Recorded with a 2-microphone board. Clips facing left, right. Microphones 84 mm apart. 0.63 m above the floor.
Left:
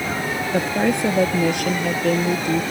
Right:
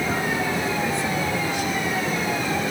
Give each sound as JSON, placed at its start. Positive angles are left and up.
{"t": 0.5, "sound": "a woman speaking", "side_deg": 60}